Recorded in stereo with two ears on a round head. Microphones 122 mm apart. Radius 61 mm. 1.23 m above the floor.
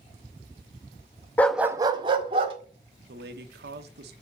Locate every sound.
1.4 s a dog barking: 15° left (ahead or behind), 0.6 m; by 2.5 s 40° right (ahead or behind), 1.7 m
3.1 s a man speaking: 85° right, 1.1 m